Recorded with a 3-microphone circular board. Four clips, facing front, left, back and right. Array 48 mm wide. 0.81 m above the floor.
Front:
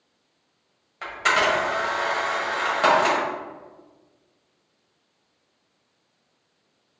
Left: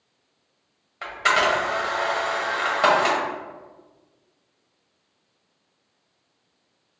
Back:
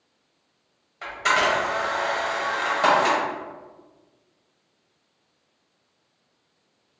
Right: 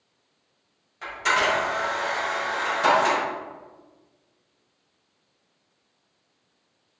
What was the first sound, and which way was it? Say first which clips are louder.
A camera shutter: left 2 dB, even; 65° left.